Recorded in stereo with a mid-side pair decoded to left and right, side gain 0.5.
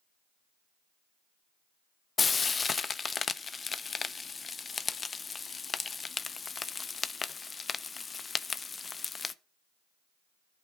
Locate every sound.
2.2 s frying: 30° left, 0.6 m